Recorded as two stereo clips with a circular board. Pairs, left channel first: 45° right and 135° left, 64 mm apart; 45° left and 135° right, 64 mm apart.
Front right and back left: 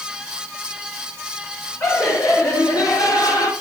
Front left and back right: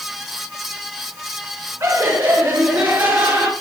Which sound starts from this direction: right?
Laughter, at 1.8 s.